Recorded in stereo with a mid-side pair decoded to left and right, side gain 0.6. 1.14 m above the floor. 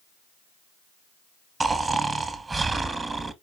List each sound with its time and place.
1.6 s snoring: 20° right, 0.8 m